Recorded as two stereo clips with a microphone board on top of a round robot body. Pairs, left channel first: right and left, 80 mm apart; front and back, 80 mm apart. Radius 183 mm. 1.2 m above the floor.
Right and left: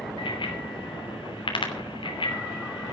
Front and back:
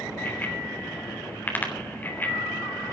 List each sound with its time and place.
0.2 s a bicycle bell: 70° right, 3 m